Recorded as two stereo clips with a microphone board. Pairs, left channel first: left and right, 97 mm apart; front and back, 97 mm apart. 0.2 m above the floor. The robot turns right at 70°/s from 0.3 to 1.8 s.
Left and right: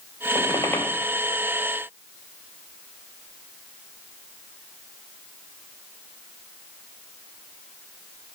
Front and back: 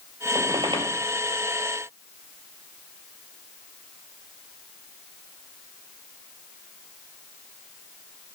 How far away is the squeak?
About 1.0 m.